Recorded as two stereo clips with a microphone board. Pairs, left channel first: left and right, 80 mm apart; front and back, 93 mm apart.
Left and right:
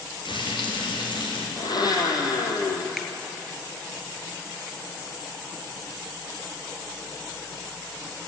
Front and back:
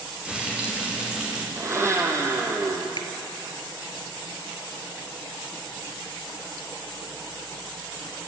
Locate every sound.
0.2 s frying: 100° left, 5.5 m
1.6 s a blender: 120° left, 2.5 m
3.0 s a finger snap: straight ahead, 1.8 m